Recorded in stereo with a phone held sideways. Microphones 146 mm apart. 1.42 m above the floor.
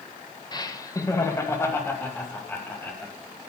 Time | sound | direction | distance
0.5 | laughter | 30° left (ahead or behind) | 1.5 m